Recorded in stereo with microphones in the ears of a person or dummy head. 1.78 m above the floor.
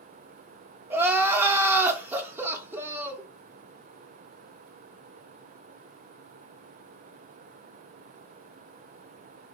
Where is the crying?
10° right (ahead or behind), 0.5 m.